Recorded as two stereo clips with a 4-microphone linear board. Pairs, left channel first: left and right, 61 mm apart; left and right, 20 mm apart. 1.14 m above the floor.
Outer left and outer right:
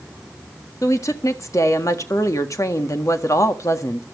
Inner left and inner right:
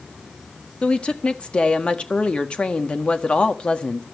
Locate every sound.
0.8 s a woman speaking: 60° left (ahead or behind), 1.6 m